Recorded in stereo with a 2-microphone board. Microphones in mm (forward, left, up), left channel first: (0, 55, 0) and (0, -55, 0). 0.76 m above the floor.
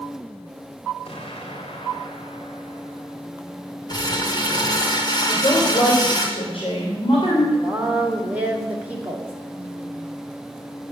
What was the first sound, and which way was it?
An explosion, 70° left (ahead or behind).